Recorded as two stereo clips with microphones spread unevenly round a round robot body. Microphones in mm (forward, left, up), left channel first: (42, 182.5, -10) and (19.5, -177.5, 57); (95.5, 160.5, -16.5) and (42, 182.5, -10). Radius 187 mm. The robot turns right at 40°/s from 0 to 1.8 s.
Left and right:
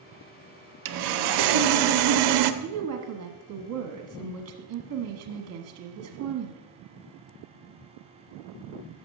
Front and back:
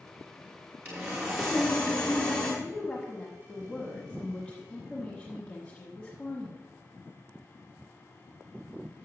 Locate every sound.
0.8 s sawing: 135° right, 0.7 m; by 2.5 s 95° right, 0.7 m
2.6 s a woman speaking: 75° right, 1.2 m